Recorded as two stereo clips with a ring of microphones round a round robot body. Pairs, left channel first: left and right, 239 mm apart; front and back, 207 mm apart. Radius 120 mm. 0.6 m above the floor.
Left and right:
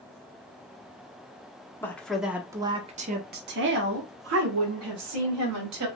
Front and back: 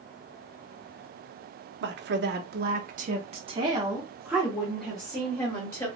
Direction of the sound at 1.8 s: 170° left.